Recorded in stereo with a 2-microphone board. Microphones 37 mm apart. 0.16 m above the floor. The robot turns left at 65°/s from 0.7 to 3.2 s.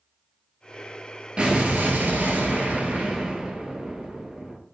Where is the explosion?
35° right, 0.9 m; by 4.6 s 155° right, 0.9 m.